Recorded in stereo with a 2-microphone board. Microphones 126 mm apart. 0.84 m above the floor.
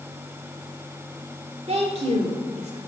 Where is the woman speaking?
50° right (ahead or behind), 2.5 m; by 2.8 s 60° right (ahead or behind), 1.9 m.